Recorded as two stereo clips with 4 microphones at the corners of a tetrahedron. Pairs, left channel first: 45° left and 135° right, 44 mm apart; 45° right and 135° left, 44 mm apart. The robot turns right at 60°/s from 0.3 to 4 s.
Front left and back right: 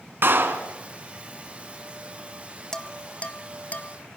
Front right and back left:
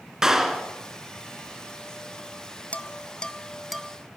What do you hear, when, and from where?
0.2 s a clap: 150° right, 1.8 m; by 0.7 s 125° right, 1.8 m
2.7 s dishes clattering: 20° right, 1.0 m; by 4.0 s 55° left, 1.0 m